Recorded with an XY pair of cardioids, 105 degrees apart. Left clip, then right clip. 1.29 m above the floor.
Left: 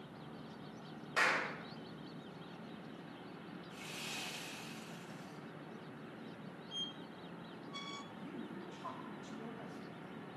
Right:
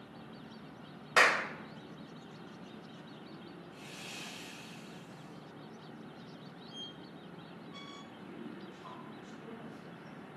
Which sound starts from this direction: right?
A clap, at 1.2 s.